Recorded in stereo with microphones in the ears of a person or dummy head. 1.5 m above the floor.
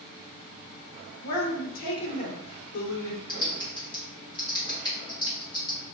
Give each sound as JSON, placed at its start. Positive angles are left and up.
{"t": 1.2, "sound": "a woman speaking", "side_deg": 85, "distance_m": 0.9}
{"t": 3.3, "sound": "typing on a keyboard", "side_deg": 15, "distance_m": 0.9}